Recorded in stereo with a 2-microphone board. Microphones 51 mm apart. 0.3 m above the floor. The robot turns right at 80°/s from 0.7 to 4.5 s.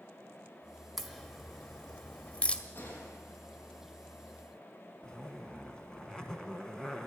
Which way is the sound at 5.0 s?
15° left (ahead or behind).